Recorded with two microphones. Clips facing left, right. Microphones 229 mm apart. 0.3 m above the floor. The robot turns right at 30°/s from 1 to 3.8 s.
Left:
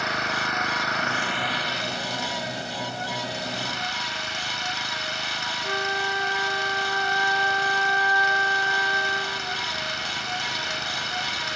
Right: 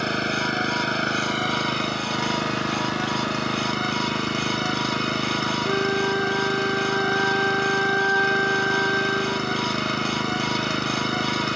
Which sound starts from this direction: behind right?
An engine running, at 0.0 s.